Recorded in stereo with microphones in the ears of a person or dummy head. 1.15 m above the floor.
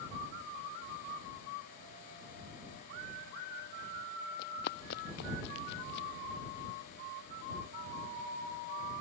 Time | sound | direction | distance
4.4 | running footsteps | 65° left (ahead or behind) | ?